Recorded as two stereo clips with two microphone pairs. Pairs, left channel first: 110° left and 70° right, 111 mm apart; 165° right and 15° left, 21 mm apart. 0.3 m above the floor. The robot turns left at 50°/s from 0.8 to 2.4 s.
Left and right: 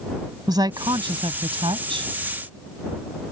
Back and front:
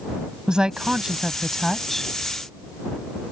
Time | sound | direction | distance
0.5 | a woman speaking | 30° right | ?